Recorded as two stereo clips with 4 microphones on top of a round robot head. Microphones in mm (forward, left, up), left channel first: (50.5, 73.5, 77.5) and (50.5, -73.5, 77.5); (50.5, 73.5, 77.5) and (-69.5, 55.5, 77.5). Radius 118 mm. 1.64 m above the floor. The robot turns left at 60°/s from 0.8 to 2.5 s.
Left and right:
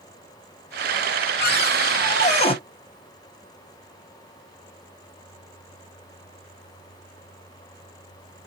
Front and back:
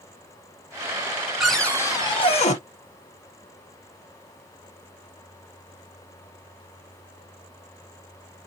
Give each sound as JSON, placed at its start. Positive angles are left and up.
{"t": 1.4, "sound": "a cupboard door", "azimuth_deg": 105, "distance_m": 1.2}